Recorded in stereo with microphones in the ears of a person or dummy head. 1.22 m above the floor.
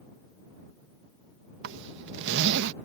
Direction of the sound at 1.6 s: 70° right (ahead or behind).